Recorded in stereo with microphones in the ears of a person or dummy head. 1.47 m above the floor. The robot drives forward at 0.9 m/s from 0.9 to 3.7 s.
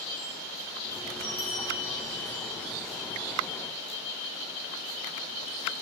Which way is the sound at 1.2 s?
45° left (ahead or behind).